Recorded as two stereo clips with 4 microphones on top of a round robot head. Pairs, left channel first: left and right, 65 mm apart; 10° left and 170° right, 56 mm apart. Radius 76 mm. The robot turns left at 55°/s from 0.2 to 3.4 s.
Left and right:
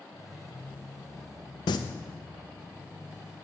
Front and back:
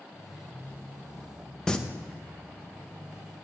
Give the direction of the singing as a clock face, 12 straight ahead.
9 o'clock.